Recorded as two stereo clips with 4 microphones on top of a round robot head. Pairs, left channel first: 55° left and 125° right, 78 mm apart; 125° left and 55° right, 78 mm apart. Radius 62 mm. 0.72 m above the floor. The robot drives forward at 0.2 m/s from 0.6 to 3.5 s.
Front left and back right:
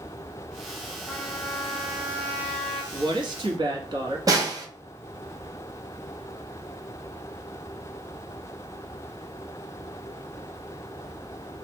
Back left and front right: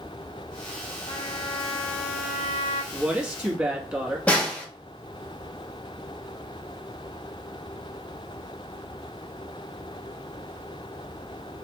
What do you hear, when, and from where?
1.1 s a trumpet: 130° left, 1.7 m; by 2.8 s 140° left, 1.9 m
2.9 s a woman speaking: 130° right, 1.5 m; by 4.2 s 135° right, 1.6 m
4.3 s a snare drum: 165° right, 1.3 m